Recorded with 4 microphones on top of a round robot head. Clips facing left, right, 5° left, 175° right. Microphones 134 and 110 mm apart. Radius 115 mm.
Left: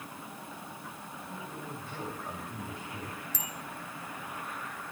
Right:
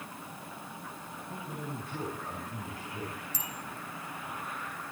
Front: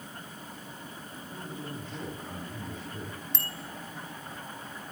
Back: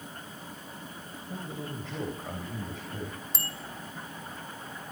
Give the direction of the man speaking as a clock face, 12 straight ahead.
6 o'clock.